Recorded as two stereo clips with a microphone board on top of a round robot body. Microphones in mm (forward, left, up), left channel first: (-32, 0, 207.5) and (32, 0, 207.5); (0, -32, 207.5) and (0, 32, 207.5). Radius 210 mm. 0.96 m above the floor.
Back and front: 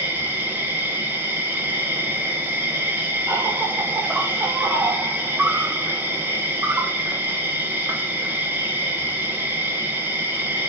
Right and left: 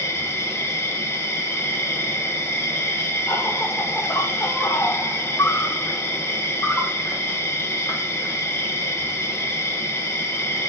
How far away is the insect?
About 1.1 m.